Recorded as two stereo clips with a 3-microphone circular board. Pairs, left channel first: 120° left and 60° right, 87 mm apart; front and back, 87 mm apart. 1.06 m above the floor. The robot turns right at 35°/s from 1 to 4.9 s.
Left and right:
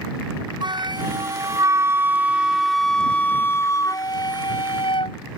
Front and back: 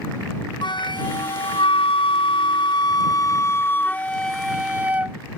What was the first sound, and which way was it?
A flute, 30° right.